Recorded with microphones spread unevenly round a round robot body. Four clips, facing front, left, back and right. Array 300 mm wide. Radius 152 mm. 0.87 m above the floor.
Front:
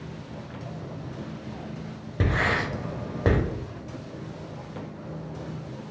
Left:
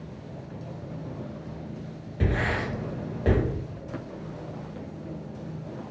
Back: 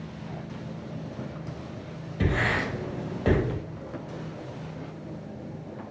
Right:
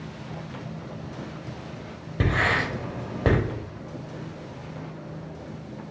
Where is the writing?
60° right, 0.9 m.